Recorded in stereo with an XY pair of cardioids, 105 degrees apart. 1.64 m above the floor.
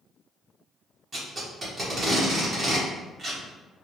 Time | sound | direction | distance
1.1 | tape being pulled | 35° right | 1.6 m